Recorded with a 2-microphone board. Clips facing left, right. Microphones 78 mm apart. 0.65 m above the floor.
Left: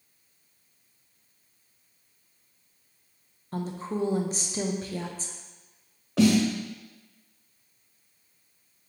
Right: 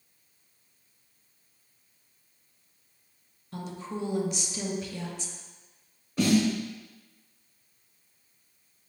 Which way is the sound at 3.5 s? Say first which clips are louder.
Left 5 dB; 35° left (ahead or behind).